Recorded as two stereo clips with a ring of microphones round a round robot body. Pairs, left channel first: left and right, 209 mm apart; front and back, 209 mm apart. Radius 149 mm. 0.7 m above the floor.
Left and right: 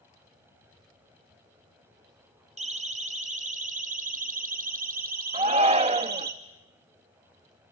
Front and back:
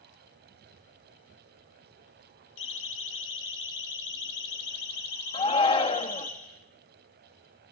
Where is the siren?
35° right, 4.5 m; by 6.3 s 60° right, 3.5 m.